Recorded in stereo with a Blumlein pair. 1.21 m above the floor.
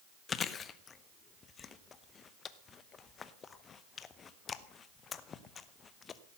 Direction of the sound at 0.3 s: 20° left.